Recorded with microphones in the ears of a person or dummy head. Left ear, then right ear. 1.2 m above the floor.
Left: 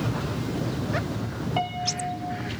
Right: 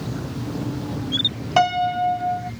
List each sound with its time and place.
1.6 s a piano: 65° right (ahead or behind)